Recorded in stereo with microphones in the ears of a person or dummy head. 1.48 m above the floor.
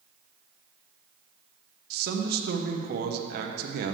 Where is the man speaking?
60° right (ahead or behind), 0.9 m.